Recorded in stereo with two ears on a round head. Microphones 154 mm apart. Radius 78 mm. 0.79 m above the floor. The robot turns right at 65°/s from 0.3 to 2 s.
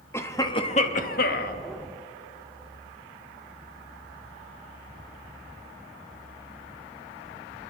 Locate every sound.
0.1 s a cough: 20° left, 0.8 m; by 1.6 s 100° left, 0.8 m